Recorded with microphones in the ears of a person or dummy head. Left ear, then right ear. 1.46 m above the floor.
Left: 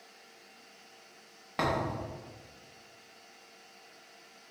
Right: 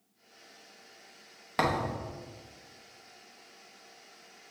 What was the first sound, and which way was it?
A thud, 20° right (ahead or behind).